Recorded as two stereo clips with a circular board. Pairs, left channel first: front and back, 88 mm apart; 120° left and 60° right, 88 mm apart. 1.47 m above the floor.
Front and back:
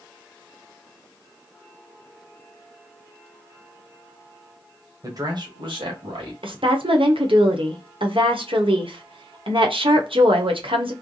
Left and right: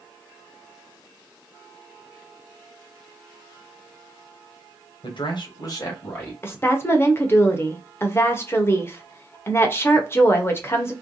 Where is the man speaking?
130° left, 1.2 m; by 6.3 s straight behind, 1.7 m.